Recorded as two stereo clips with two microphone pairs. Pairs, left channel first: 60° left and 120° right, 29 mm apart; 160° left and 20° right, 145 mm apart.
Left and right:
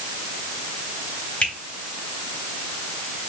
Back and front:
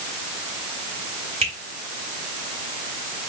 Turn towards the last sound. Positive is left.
turn(degrees=20)